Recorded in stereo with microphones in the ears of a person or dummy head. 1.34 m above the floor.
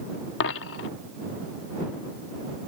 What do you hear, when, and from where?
0.4 s a dropped coin: 55° left (ahead or behind)